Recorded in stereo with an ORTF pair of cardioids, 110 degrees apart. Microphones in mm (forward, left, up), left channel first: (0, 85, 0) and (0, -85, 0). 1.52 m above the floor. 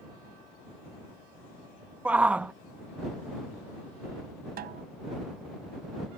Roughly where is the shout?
Ahead.